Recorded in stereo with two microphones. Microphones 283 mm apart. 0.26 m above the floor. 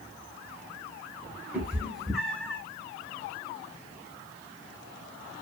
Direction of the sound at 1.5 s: 5° right (ahead or behind).